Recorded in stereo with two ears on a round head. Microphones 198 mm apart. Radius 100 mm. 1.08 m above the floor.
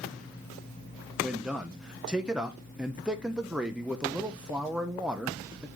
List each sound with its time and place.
1.2 s a man speaking: 5° right (ahead or behind), 0.6 m